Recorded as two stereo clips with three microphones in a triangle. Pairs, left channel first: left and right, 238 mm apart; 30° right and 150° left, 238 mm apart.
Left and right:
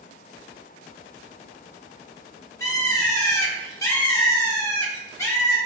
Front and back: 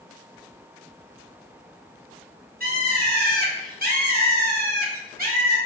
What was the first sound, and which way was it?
A bird, 160° left.